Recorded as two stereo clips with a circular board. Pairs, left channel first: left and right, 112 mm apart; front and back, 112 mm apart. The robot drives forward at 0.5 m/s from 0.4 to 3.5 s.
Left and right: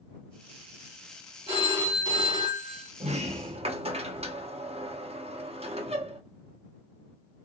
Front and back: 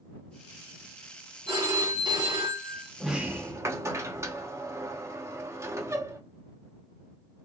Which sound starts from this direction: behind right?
A phone ringing, at 1.5 s.